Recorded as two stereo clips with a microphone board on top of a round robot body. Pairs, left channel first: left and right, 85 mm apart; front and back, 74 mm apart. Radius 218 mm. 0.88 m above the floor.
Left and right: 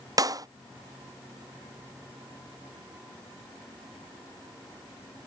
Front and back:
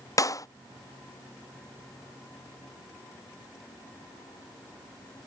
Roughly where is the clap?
Ahead right.